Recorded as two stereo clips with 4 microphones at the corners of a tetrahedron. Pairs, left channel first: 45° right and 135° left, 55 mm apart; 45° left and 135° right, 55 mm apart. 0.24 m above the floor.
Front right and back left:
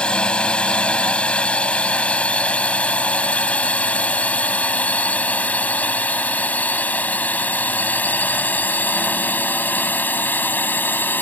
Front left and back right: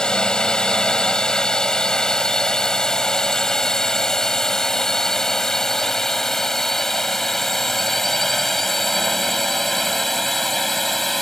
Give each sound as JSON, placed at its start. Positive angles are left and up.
{"t": 0.0, "sound": "a drone", "azimuth_deg": -10}